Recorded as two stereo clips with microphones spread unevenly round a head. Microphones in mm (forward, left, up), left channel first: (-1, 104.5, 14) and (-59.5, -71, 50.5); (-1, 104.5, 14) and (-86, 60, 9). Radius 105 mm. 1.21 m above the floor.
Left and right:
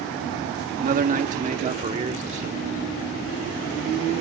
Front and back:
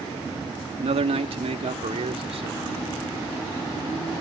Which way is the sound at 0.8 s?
155° right.